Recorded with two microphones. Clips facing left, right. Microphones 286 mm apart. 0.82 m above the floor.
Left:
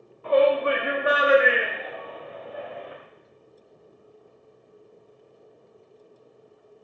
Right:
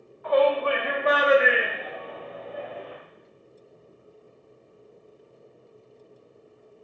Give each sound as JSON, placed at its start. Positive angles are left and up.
{"t": 0.2, "sound": "a shout", "side_deg": 35, "distance_m": 1.6}